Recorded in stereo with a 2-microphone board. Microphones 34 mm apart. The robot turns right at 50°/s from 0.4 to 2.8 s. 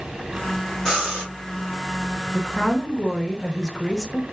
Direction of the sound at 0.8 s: 5° left (ahead or behind).